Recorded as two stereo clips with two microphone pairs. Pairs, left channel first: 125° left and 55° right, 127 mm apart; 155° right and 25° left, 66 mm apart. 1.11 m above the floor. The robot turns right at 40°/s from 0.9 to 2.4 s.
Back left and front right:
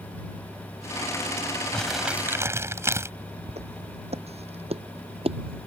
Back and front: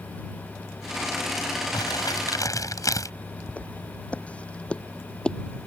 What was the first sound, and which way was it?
Crumpling, 150° right.